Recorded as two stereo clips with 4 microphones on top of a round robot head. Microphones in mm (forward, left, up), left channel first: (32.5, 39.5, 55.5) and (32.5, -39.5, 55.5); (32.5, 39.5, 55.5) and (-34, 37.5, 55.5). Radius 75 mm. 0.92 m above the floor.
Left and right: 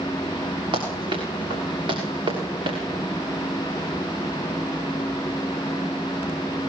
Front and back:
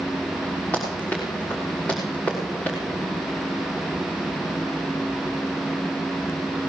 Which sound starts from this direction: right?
Running footsteps, at 0.7 s.